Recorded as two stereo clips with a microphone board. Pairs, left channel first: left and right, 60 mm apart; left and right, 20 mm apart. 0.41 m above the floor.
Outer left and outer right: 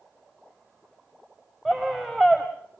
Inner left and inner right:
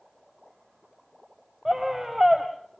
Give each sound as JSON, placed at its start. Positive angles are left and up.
{"t": 1.6, "sound": "a scream", "side_deg": 0, "distance_m": 2.0}